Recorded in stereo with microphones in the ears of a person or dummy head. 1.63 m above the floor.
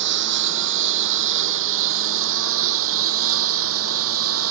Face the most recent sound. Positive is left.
turn(degrees=-85)